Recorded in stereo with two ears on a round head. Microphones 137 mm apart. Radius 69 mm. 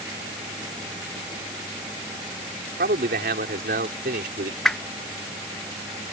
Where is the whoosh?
5° left (ahead or behind).